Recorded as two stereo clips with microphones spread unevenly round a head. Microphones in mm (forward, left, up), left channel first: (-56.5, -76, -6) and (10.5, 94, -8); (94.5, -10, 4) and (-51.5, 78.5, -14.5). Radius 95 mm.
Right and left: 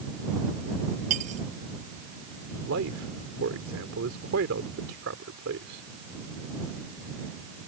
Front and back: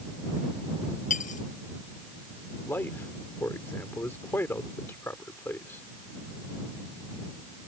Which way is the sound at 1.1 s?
10° left.